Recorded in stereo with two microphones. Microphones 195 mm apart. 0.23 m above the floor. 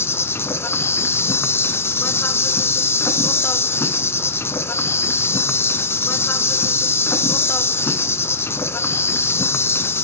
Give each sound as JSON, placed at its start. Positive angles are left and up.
{"t": 0.0, "sound": "an insect", "side_deg": 15, "distance_m": 0.9}